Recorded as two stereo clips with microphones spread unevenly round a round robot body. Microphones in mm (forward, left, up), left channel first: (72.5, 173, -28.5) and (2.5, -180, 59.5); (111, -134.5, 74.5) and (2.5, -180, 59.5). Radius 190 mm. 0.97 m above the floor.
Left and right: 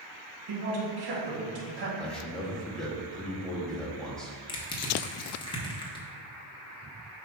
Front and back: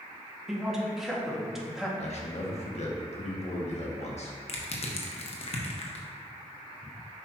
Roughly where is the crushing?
Ahead.